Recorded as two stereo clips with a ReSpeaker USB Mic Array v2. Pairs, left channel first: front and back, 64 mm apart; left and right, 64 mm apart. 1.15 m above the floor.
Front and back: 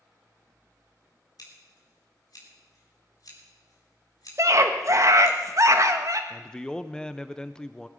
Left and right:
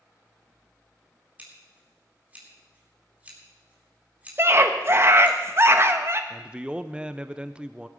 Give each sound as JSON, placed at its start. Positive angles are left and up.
{"t": 1.4, "sound": "scissors", "azimuth_deg": -20, "distance_m": 3.5}
{"t": 4.4, "sound": "a scream", "azimuth_deg": -140, "distance_m": 1.3}
{"t": 6.3, "sound": "a man speaking", "azimuth_deg": -55, "distance_m": 0.6}